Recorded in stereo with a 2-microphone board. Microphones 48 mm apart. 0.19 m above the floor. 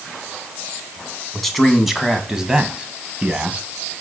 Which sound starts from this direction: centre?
A man speaking, at 1.3 s.